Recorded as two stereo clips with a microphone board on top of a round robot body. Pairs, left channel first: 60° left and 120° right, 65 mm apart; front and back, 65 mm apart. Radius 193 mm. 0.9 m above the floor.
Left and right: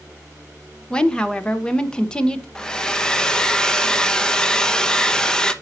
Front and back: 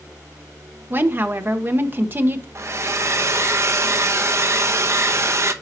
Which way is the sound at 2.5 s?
140° left.